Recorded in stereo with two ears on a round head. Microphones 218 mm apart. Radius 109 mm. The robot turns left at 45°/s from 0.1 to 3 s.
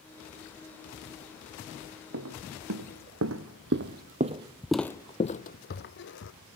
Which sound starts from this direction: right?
Footsteps, at 2.1 s.